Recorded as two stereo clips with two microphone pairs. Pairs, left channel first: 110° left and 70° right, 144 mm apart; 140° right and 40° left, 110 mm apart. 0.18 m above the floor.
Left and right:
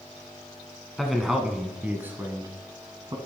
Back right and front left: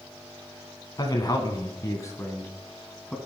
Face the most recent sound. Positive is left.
turn(degrees=-60)